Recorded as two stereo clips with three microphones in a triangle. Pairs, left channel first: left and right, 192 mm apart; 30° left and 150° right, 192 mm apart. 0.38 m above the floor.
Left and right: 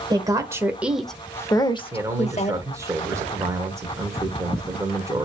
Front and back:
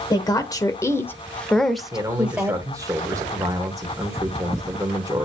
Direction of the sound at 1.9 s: 125° right.